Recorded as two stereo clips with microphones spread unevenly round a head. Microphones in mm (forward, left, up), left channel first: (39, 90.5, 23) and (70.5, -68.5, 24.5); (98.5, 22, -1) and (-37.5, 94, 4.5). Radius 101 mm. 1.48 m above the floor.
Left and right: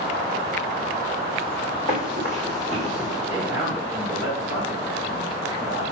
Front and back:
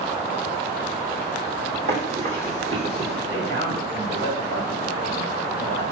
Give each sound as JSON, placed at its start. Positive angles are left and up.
{"t": 1.9, "sound": "running footsteps", "azimuth_deg": -165, "distance_m": 3.0}
{"t": 3.3, "sound": "a man speaking", "azimuth_deg": -165, "distance_m": 2.0}